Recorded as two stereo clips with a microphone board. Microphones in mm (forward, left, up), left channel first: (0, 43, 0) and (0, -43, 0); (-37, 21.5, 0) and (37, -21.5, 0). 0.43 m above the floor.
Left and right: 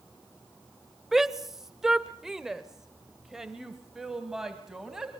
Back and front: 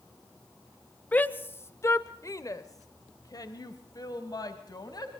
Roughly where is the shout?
Behind.